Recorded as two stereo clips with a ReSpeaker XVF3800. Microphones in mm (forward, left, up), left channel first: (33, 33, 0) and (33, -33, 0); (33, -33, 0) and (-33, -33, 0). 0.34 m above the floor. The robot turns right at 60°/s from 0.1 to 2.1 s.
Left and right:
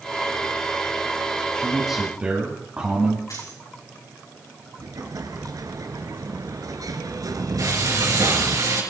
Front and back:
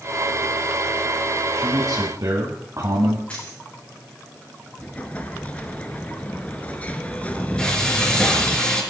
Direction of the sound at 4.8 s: 70° right.